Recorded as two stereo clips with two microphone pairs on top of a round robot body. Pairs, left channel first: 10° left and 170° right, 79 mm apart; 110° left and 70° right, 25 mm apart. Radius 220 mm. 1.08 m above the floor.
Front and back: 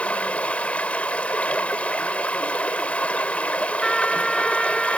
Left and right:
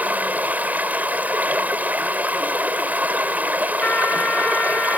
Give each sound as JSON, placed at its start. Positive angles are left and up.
{"t": 0.0, "sound": "running water", "azimuth_deg": -65}
{"t": 3.8, "sound": "a trumpet", "azimuth_deg": 95}